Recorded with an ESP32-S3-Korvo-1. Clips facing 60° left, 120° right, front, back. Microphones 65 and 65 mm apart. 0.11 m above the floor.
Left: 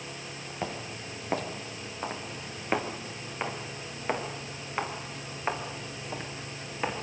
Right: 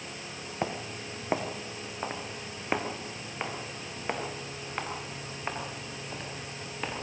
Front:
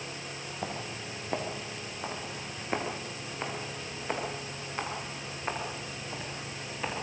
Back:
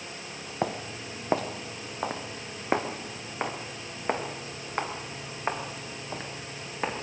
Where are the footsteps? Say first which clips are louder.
Right 2 dB, back 7 dB; 170° left, 3 m; by 7.0 s 135° left, 6.5 m.